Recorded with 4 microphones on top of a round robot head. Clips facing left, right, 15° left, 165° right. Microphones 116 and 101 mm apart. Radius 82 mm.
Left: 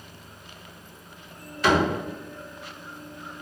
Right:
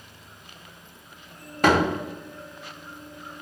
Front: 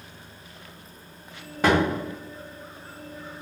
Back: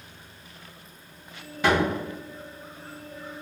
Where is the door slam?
45° right, 0.6 m.